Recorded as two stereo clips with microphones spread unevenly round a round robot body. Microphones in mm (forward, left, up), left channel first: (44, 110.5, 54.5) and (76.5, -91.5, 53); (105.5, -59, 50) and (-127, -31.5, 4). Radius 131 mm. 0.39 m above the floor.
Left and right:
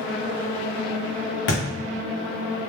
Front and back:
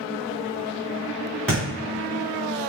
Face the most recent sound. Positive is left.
turn(degrees=75)